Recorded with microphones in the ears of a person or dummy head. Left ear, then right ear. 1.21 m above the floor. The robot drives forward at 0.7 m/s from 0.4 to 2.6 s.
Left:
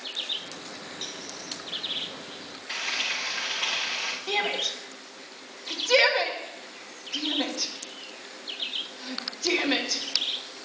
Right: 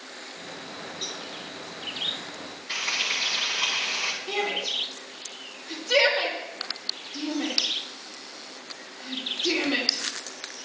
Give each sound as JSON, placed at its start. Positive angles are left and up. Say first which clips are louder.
{"t": 1.0, "sound": "a cowbell", "louder": "right 3 dB", "side_deg": 15, "distance_m": 1.2}
{"t": 2.7, "sound": "frying", "louder": "right 2 dB", "side_deg": 20, "distance_m": 7.5}
{"t": 4.3, "sound": "a shout", "louder": "even", "side_deg": 70, "distance_m": 2.5}